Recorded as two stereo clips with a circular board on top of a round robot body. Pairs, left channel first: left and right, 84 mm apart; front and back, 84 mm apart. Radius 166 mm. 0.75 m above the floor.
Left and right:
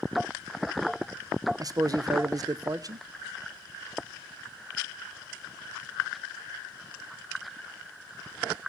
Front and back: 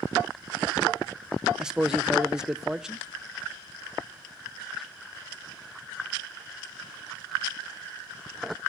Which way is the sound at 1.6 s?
100° right.